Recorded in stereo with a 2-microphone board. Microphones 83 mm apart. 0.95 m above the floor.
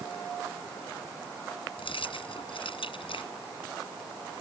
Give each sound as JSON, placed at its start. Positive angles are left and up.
{"t": 1.8, "sound": "keys jangling", "side_deg": 90}